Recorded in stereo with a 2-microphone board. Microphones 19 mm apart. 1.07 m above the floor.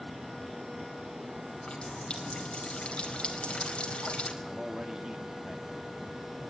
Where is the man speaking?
30° right (ahead or behind), 2.5 m.